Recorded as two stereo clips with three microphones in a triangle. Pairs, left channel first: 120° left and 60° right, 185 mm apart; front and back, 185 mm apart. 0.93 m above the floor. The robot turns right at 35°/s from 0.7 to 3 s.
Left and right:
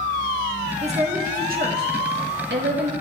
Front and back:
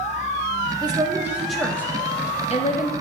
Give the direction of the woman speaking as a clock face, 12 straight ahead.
4 o'clock.